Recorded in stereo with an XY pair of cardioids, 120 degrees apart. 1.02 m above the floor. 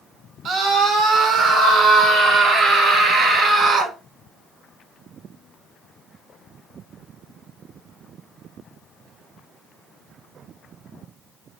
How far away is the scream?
About 6.5 m.